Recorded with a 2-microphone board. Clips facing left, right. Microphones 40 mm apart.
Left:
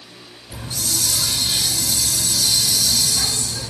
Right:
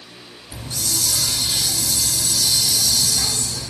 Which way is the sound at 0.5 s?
50° left (ahead or behind).